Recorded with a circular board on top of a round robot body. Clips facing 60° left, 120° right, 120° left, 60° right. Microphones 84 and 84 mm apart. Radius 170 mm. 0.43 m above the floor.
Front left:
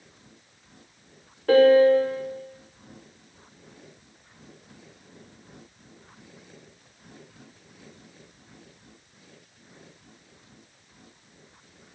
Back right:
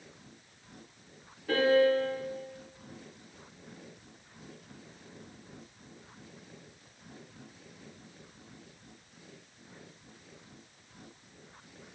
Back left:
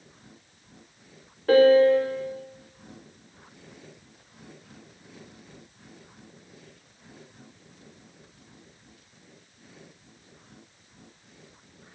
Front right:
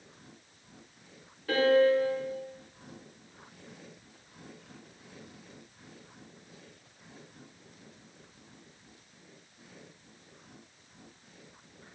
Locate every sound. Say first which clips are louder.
1.5 s a piano: front left 9 dB, back left 7 dB; 80° left, 1.5 m